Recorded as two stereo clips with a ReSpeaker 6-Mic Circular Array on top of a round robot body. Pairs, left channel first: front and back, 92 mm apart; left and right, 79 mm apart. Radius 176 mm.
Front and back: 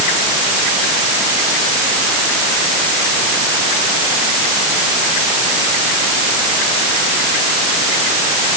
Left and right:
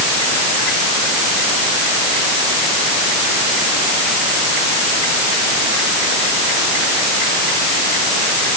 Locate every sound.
Only background noise.